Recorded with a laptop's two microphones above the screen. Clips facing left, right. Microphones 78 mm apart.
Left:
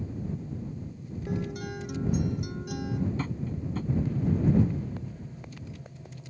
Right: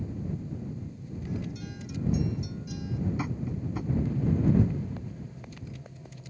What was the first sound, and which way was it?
A guitar, 60° left (ahead or behind).